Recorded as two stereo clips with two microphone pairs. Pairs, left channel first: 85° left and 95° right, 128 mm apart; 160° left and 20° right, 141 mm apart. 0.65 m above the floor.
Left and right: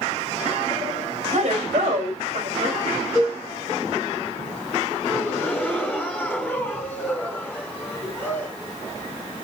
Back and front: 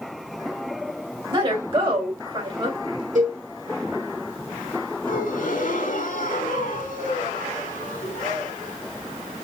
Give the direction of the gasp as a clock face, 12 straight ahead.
6 o'clock.